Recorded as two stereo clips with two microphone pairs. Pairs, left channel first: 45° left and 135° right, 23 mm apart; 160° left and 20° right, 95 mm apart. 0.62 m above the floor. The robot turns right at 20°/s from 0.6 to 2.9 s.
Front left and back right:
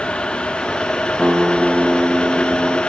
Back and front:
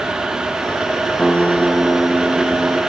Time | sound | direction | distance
1.2 | a guitar | 120° right | 0.6 m